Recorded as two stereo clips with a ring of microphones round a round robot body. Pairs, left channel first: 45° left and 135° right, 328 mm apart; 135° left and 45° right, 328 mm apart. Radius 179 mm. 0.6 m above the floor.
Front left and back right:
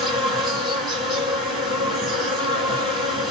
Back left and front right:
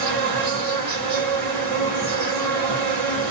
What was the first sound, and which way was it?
An insect, 45° right.